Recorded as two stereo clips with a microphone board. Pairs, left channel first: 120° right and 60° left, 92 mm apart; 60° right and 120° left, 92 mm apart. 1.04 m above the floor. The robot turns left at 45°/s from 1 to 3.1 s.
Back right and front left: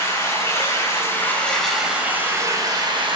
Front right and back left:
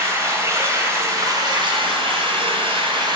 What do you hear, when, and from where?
0.0 s running water: straight behind, 3 m; by 3.2 s 85° left, 3 m